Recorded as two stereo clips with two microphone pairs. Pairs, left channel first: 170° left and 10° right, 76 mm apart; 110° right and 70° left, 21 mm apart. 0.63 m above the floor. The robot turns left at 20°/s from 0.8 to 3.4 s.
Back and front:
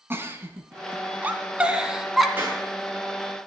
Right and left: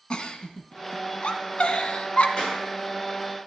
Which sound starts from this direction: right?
A clap, at 2.4 s.